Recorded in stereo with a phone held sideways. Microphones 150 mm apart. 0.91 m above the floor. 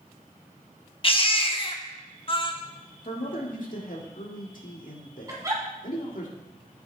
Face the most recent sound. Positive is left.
turn(degrees=-25)  # may be behind; listen again after turning